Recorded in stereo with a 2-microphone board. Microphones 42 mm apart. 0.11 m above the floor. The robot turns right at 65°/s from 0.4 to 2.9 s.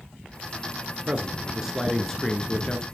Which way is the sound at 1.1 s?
20° right (ahead or behind).